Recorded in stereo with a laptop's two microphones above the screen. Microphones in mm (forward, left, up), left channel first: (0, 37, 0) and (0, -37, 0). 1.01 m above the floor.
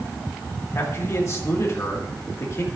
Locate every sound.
0.8 s a man speaking: 40° left (ahead or behind), 1.9 m